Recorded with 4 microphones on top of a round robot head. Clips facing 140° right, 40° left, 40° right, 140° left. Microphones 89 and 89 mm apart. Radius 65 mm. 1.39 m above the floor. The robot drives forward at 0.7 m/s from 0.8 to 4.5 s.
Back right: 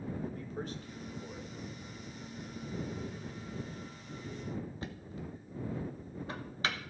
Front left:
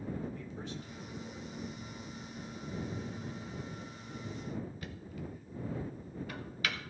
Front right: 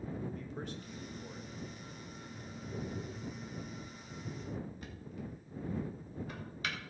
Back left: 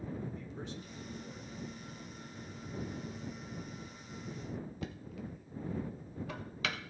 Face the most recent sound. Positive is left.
turn(degrees=160)